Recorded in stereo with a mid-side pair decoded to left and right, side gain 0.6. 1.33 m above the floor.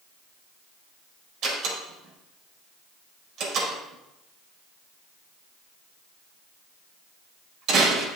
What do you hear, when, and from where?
1.4 s a door slam: 55° right, 4.5 m